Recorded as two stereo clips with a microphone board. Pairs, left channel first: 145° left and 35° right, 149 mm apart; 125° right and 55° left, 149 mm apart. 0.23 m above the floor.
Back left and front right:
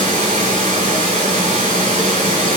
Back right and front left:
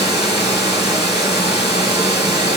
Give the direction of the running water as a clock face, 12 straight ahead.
12 o'clock.